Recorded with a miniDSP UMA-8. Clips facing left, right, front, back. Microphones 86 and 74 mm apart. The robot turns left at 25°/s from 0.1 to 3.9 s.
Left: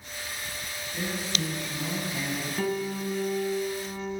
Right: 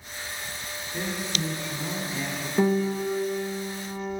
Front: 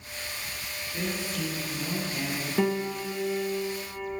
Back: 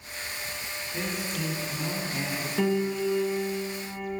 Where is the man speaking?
130° right, 1.7 m; by 2.5 s 170° right, 1.7 m.